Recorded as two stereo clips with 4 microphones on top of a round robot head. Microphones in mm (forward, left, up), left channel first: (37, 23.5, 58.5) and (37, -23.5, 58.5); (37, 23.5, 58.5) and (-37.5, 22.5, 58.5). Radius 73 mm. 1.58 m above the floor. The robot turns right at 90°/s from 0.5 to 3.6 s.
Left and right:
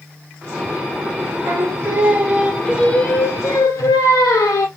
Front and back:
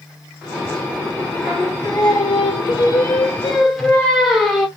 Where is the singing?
100° right, 0.8 m; by 4.7 s 90° left, 0.8 m.